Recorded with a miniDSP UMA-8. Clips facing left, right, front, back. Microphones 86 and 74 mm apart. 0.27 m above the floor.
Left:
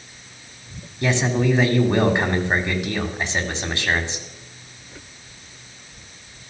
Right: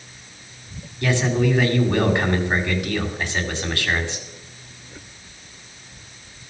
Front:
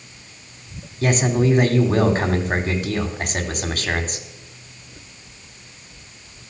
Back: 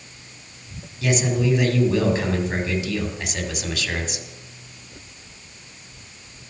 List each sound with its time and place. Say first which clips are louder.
1.0 s a man speaking: even, front 3 dB; 25° left, 2 m